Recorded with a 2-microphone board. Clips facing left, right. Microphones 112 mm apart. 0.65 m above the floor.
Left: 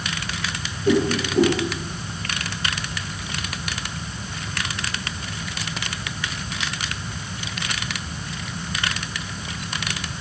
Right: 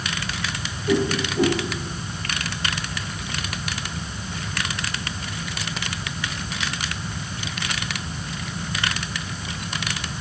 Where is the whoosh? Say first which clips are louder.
Left 2 dB; 80° left, 8.5 m.